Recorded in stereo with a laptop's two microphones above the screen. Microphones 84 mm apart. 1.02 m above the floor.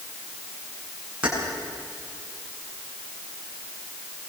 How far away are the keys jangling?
About 9 m.